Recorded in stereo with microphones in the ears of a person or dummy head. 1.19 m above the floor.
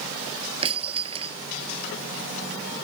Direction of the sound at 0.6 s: 25° right (ahead or behind).